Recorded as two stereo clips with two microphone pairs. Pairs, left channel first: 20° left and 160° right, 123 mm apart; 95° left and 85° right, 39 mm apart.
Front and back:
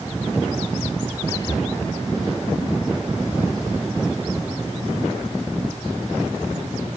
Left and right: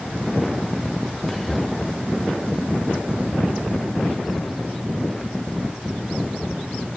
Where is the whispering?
20° left, 1.4 m.